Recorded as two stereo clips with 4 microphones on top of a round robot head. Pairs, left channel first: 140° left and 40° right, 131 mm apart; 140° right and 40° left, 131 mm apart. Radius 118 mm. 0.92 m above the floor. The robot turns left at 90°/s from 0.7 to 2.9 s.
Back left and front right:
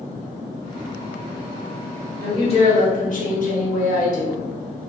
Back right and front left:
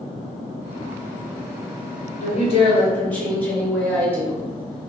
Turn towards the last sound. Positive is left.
turn(degrees=140)